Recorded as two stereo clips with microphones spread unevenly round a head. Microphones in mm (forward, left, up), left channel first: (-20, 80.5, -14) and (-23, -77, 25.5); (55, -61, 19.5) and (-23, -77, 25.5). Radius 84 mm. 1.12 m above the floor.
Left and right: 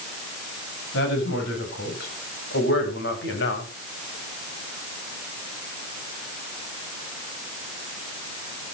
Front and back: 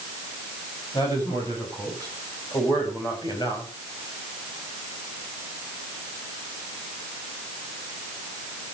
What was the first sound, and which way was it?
A woman speaking, 75° left.